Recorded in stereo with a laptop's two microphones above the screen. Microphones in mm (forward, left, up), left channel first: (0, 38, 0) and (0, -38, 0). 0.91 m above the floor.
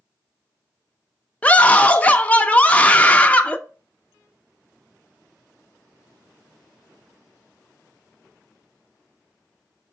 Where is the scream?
20° left (ahead or behind), 0.8 m.